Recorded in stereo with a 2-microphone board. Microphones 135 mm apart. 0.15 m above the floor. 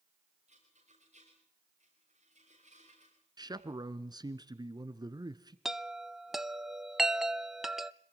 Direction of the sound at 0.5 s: 60° right (ahead or behind).